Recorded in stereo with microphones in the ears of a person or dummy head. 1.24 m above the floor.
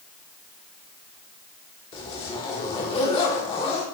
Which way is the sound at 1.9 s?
35° left (ahead or behind).